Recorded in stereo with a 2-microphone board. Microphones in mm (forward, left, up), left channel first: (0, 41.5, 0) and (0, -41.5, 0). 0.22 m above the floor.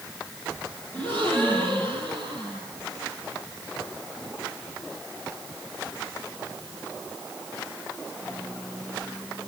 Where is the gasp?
25° left (ahead or behind), 5.5 m.